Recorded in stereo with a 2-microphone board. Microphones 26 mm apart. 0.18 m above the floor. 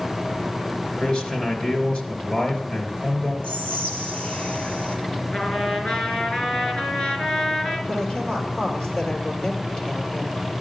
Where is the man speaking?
55° left (ahead or behind), 3 m.